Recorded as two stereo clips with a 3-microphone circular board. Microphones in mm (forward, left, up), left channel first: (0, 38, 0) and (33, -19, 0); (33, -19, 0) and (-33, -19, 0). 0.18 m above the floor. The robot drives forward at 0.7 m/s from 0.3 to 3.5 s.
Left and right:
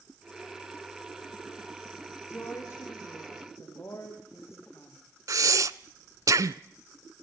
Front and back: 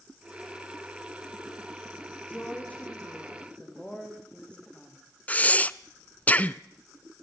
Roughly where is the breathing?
Ahead right.